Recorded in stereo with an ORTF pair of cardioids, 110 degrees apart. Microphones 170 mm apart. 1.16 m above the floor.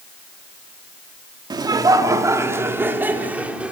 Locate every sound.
1.5 s laughter: 25° right, 2.5 m; by 3.7 s 5° right, 3.5 m